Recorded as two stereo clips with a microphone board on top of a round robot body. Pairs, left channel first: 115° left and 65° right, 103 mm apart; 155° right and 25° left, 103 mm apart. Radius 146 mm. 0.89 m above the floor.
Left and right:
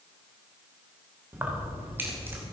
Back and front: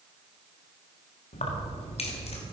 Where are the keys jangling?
140° right, 1.6 m.